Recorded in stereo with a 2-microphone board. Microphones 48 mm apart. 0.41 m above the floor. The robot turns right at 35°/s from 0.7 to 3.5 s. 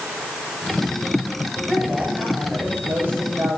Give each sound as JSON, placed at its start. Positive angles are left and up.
{"t": 1.6, "sound": "a woman speaking", "azimuth_deg": 175, "distance_m": 7.5}